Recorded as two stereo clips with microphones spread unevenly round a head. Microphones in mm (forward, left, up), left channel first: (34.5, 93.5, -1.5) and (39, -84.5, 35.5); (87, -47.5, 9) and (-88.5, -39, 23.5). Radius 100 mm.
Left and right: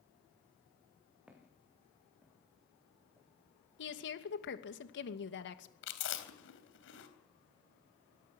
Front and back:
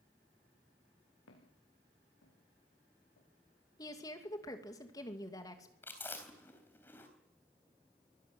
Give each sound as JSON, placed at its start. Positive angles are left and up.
{"t": 1.3, "sound": "footsteps", "azimuth_deg": -5, "distance_m": 7.5}
{"t": 3.8, "sound": "a woman speaking", "azimuth_deg": 70, "distance_m": 2.5}
{"t": 5.8, "sound": "chewing", "azimuth_deg": 80, "distance_m": 3.0}